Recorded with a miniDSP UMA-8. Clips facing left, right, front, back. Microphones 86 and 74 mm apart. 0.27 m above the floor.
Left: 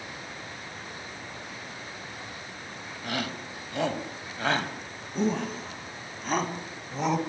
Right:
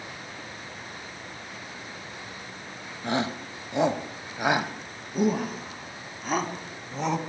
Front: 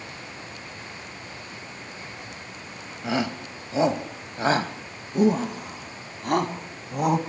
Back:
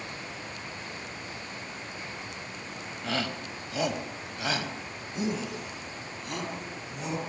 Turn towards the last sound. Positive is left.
turn(degrees=0)